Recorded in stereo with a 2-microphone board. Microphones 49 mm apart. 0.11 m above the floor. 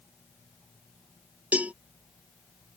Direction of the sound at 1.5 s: 30° right (ahead or behind).